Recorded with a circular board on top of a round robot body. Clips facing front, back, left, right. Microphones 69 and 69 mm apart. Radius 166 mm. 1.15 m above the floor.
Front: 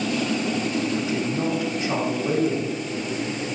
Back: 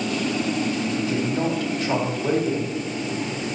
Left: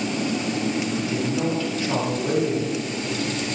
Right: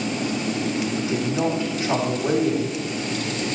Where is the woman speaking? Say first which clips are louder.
Back 1 dB, right 1 dB; 155° right, 4.5 m.